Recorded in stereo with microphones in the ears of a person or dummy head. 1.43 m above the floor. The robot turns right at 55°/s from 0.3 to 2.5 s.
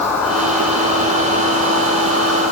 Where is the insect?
165° left, 7.5 m; by 2.5 s 75° right, 7.5 m.